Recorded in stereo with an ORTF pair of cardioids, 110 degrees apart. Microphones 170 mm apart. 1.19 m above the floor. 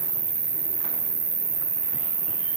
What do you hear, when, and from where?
0.0 s an insect: 35° right, 1.1 m